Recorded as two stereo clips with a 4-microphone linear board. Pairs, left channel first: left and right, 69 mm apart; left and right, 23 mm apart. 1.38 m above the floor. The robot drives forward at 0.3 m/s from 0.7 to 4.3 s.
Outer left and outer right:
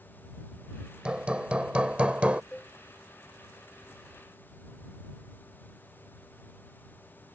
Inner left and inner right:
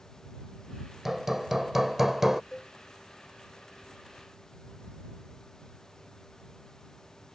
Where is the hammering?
15° right (ahead or behind); by 2.4 s 20° right (ahead or behind).